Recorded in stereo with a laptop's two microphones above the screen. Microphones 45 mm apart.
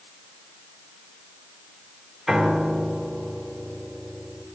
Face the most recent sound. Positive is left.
turn(degrees=-10)  # may be behind; listen again after turning